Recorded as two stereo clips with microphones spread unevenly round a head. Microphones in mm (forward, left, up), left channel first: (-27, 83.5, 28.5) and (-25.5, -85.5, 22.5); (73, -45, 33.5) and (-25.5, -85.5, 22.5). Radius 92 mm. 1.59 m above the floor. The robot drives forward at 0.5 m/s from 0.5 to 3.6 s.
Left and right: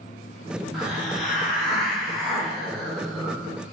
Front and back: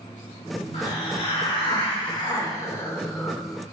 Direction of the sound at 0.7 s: Straight ahead.